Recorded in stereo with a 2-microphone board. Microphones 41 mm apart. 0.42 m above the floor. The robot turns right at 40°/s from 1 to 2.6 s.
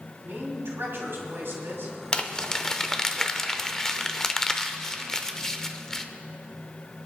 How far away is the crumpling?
About 0.6 m.